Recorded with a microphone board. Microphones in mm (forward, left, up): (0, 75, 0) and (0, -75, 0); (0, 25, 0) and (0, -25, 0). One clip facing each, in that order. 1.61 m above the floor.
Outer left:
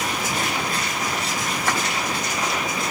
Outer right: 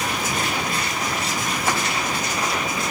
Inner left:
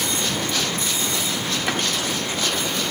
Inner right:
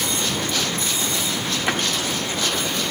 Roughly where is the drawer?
Centre.